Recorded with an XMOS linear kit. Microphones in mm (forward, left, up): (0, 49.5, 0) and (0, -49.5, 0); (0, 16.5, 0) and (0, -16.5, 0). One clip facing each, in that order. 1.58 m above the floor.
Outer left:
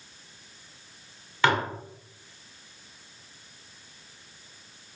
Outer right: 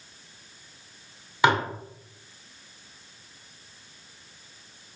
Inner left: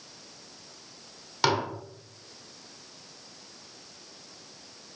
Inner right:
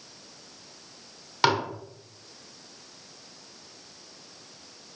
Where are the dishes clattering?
15° right (ahead or behind), 0.7 m.